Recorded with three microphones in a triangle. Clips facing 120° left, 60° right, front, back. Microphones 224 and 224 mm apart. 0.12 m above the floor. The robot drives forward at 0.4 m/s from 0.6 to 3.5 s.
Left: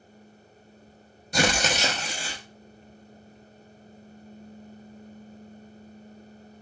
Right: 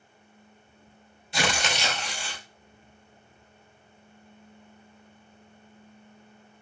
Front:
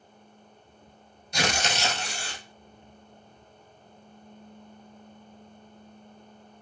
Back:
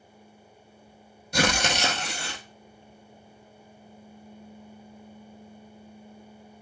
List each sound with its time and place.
1.3 s tearing paper: 160° left, 0.7 m; by 2.4 s 165° left, 1.1 m